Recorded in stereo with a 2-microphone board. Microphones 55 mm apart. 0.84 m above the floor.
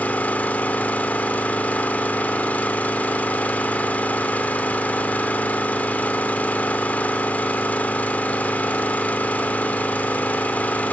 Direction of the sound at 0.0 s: 25° left (ahead or behind).